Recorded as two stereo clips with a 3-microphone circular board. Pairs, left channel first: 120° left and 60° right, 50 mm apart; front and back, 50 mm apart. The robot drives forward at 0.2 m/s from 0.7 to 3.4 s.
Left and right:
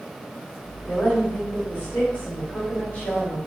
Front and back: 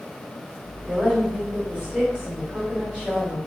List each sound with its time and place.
0.9 s a woman speaking: 120° left, 1.3 m; by 3.4 s 145° left, 1.5 m